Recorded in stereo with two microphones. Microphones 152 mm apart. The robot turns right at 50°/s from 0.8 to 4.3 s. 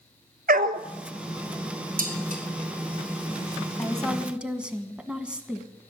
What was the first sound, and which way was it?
A dog barking, 75° right (ahead or behind).